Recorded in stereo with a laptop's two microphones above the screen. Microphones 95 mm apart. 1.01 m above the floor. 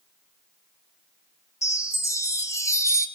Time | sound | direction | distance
1.6 | a chime | 35° left (ahead or behind) | 1.2 m